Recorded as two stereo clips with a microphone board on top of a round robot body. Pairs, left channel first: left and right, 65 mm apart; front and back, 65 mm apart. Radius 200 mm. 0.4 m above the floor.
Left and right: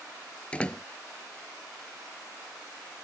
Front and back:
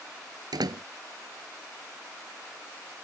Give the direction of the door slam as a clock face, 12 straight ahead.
7 o'clock.